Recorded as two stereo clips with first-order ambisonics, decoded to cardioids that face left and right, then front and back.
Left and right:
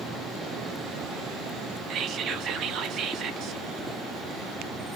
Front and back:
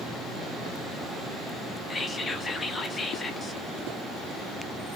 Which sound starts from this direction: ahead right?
Whispering, at 1.9 s.